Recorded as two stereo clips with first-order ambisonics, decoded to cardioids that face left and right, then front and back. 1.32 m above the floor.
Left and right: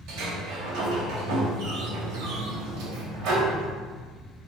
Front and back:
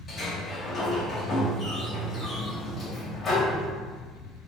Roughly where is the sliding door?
Ahead right.